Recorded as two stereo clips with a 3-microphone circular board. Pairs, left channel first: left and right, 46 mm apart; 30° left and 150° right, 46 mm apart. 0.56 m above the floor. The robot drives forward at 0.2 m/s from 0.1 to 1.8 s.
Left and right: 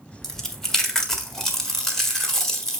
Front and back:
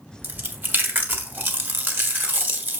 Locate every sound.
0.2 s chewing: 170° left, 1.3 m